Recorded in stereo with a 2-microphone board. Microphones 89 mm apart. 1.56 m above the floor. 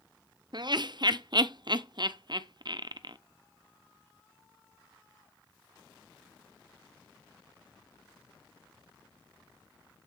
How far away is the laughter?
About 0.5 m.